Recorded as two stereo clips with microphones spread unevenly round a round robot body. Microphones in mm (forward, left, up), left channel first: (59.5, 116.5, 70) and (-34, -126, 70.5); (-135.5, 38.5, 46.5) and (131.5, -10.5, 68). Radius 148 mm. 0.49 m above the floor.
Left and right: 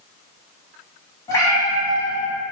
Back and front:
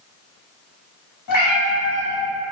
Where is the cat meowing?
150° left, 1.0 m.